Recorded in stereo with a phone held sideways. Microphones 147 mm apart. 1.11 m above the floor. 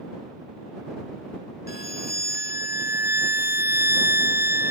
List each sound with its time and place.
1.7 s a violin: 85° left